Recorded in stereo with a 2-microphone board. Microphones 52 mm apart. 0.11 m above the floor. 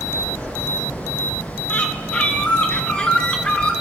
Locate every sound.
1.7 s a bird: 20° left (ahead or behind), 1.3 m